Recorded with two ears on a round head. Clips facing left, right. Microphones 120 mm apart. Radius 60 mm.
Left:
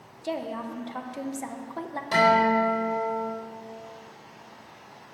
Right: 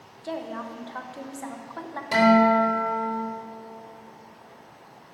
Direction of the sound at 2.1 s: 10° right (ahead or behind).